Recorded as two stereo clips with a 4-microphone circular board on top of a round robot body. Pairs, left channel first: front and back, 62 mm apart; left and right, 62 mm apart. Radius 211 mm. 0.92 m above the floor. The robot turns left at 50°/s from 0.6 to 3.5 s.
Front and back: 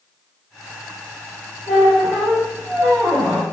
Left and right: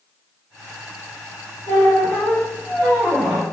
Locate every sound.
1.7 s a squeak: 85° right, 1.2 m; by 3.5 s 175° right, 1.2 m